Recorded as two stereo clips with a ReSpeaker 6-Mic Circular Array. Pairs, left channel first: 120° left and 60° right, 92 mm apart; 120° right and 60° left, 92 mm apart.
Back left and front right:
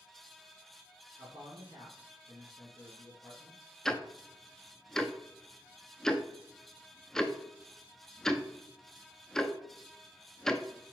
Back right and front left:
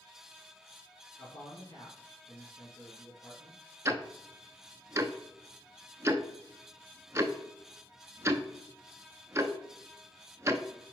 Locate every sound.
1.2 s a man speaking: 100° right, 2 m
3.9 s ticking: 40° left, 0.6 m